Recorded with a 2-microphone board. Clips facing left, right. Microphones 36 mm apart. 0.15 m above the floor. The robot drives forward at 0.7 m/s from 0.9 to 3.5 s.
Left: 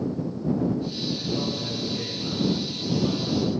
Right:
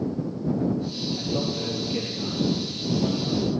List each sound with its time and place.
1.2 s a man speaking: 65° right (ahead or behind), 4 m